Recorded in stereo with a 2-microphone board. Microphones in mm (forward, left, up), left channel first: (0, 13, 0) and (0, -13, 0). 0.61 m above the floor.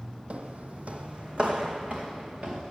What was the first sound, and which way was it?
Footsteps, 55° right (ahead or behind).